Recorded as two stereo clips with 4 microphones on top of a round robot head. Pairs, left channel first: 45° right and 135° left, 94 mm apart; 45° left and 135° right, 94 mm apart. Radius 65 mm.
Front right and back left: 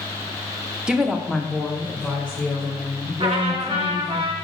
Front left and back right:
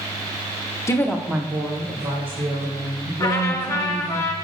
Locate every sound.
0.9 s a woman speaking: 65° left, 1.0 m; by 4.2 s 115° right, 5 m
3.2 s a trumpet: 100° left, 1.1 m